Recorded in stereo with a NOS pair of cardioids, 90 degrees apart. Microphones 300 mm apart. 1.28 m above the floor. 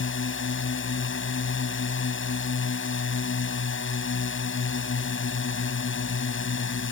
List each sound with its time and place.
0.0 s a drone: 40° left